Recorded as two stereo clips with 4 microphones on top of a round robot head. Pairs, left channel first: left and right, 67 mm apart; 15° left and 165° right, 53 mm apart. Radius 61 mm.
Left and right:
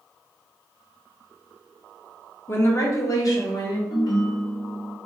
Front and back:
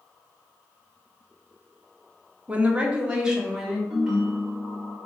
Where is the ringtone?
115° left, 1.2 m.